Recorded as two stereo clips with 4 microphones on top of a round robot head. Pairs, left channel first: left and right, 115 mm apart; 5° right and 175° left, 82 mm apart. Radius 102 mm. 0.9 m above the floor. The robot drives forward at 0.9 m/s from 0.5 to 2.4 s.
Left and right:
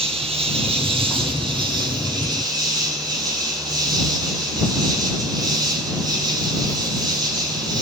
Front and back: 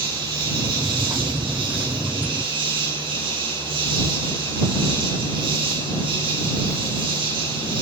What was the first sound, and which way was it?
An insect, 130° right.